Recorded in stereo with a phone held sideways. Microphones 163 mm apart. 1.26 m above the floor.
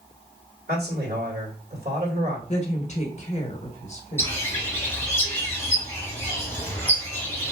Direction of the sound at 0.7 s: 70° right (ahead or behind).